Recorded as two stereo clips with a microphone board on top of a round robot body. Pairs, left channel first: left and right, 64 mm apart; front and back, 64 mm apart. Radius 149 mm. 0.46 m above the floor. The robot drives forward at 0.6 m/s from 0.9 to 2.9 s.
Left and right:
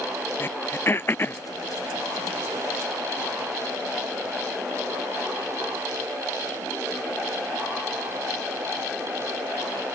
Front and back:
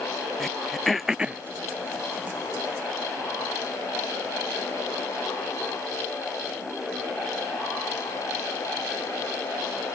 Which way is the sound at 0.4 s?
85° left.